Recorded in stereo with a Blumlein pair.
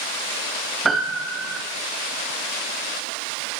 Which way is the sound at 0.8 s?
15° right.